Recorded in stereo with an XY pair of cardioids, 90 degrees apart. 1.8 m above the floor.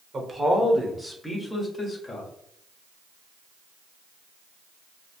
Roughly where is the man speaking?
Ahead right.